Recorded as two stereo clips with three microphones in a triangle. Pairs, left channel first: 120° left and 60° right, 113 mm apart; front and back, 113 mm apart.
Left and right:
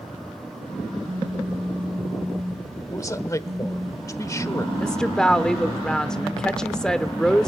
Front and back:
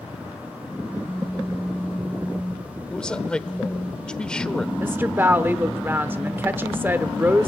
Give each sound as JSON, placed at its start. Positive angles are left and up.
{"t": 1.0, "sound": "a phone buzzing", "azimuth_deg": -85, "distance_m": 6.0}
{"t": 2.9, "sound": "a man speaking", "azimuth_deg": 80, "distance_m": 1.1}
{"t": 4.8, "sound": "a woman speaking", "azimuth_deg": -170, "distance_m": 0.8}